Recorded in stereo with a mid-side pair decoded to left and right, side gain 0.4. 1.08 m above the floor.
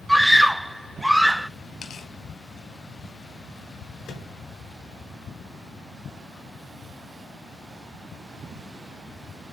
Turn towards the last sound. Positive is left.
turn(degrees=65)